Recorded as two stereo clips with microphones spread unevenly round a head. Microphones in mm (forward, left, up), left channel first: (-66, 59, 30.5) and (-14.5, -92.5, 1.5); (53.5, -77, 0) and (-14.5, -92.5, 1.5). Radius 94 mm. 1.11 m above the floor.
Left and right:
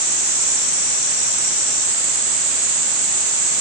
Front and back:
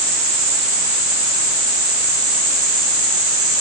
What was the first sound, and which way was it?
Only background noise.